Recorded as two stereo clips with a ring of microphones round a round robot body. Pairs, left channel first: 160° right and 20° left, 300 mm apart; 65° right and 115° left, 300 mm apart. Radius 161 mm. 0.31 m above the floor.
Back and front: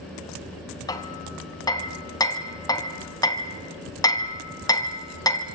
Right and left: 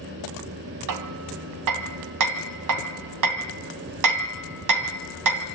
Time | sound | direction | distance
0.9 | hammering | 125° left | 1.9 m